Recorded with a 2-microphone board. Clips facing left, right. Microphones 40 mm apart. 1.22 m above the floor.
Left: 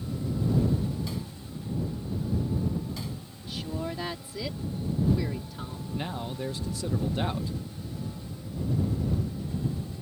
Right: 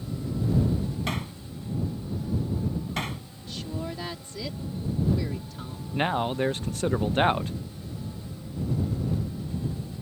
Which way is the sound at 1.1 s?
60° right (ahead or behind).